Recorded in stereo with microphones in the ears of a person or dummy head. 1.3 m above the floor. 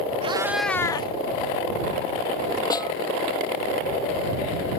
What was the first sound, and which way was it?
A cat meowing, 30° right (ahead or behind).